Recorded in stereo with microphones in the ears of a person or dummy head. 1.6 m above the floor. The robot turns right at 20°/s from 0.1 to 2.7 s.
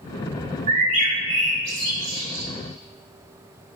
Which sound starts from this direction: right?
A bird, at 0.7 s.